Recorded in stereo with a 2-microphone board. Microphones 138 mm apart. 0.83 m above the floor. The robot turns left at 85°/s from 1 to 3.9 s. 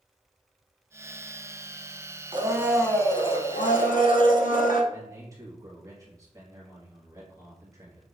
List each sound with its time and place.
2.3 s a blender: 140° right, 0.6 m; by 4.8 s 85° left, 0.6 m
4.9 s a man speaking: 25° right (ahead or behind), 1.6 m